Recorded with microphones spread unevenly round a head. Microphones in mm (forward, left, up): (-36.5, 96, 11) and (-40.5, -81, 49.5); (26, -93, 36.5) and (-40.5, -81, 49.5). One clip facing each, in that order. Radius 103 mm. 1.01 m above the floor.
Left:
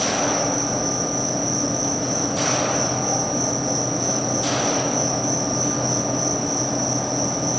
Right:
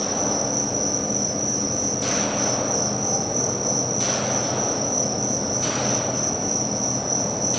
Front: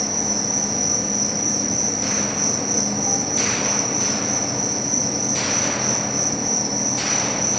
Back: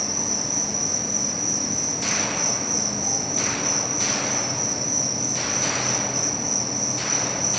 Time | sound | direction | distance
0.0 | an insect | 45° right | 9 m